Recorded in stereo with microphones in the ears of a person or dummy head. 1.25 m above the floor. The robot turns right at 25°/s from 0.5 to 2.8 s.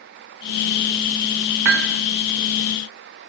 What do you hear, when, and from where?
1.6 s hammering: 60° right (ahead or behind), 1.9 m